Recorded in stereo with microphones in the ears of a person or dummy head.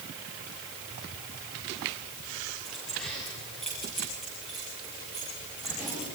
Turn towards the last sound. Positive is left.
turn(degrees=0)  # may be behind; listen again after turning